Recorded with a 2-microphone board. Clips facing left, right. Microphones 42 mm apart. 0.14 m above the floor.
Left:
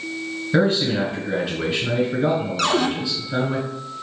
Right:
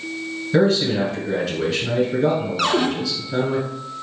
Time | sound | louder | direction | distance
0.5 | a man speaking | right 2 dB | 20° left (ahead or behind) | 1.9 m
2.6 | a cupboard door | right 1 dB | 10° right (ahead or behind) | 0.5 m